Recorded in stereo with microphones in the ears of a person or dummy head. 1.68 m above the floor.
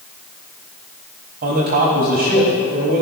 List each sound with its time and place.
1.4 s a man speaking: 45° right (ahead or behind), 3.5 m